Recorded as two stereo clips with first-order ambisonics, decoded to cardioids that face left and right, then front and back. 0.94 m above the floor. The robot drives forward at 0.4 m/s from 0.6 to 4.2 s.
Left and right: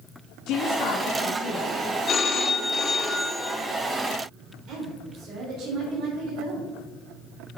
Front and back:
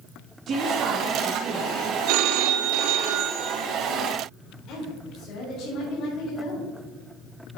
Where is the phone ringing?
155° left, 0.7 m; by 3.6 s 165° left, 1.3 m.